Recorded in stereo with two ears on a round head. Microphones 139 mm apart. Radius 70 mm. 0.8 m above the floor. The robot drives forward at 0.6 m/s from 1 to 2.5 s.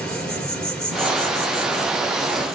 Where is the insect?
5° left (ahead or behind), 2 m.